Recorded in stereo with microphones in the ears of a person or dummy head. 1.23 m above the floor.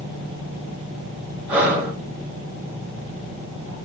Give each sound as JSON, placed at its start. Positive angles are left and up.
{"t": 1.5, "sound": "breathing", "side_deg": -5, "distance_m": 1.0}